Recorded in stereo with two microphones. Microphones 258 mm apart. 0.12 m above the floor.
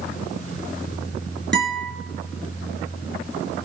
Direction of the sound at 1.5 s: 40° right (ahead or behind).